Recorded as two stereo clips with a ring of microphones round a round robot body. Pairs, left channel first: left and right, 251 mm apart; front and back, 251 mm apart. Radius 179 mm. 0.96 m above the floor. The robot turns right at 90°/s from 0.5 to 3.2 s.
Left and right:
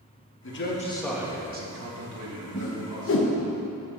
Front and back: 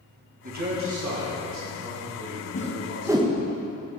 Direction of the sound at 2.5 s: 50° left.